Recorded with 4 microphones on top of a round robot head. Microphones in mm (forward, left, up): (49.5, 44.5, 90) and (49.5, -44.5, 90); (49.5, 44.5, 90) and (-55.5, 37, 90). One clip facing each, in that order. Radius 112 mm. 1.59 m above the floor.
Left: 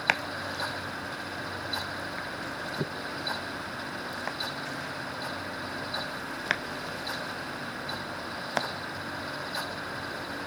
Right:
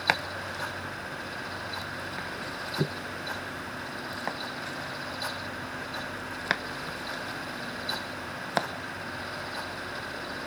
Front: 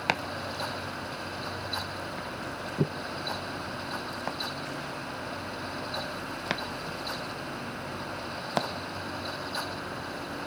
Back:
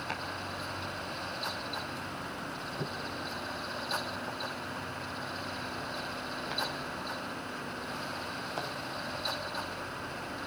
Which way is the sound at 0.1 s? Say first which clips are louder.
Right 1 dB, front 10 dB; 10° right.